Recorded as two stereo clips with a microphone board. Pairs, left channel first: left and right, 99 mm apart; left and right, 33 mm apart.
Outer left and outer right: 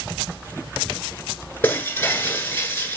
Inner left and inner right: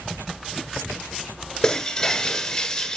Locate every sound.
1.6 s breaking glass: 20° left (ahead or behind), 1.5 m